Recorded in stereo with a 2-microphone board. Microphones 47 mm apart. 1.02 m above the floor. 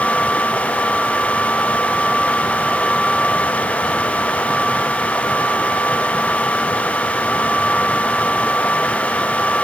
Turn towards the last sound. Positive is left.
No sound to turn to.